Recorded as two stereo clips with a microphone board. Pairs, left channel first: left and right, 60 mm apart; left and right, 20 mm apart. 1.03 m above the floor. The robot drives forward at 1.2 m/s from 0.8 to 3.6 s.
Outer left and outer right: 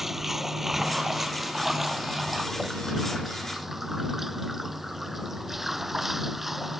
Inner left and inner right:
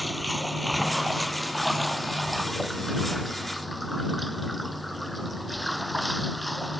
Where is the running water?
5° right (ahead or behind).